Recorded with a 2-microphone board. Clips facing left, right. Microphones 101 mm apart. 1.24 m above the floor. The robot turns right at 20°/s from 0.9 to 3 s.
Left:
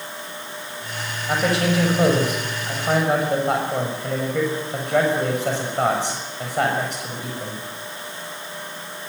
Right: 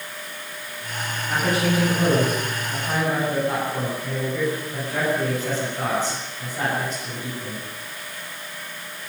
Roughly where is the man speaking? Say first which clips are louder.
Left 2 dB; left.